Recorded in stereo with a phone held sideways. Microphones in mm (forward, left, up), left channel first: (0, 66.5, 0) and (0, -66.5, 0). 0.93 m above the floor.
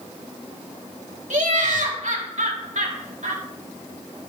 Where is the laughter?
70° right (ahead or behind), 2.5 m.